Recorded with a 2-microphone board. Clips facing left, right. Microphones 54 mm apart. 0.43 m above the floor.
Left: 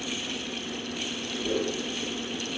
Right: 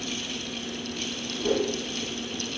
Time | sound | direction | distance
1.4 | a whoosh | 75° right (ahead or behind) | 9 m